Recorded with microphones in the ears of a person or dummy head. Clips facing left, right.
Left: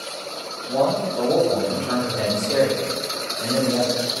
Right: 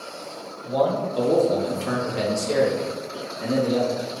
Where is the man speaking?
45° right (ahead or behind), 1.4 m; by 4.0 s 60° right (ahead or behind), 2 m.